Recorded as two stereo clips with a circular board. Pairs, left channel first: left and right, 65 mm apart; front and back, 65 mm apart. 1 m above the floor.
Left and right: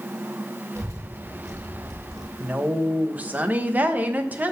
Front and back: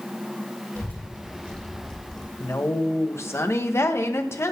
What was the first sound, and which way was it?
A child speaking, 45° right.